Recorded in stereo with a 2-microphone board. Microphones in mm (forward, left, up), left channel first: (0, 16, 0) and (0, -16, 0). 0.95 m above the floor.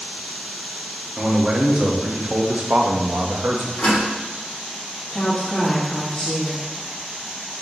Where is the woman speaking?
55° left (ahead or behind), 1.8 m.